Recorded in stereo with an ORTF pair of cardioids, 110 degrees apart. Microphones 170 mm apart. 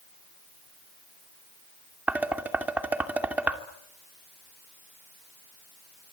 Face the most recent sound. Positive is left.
turn(degrees=-10)